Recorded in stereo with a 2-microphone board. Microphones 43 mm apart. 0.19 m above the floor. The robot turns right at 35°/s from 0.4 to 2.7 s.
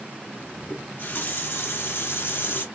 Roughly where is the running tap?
Ahead left.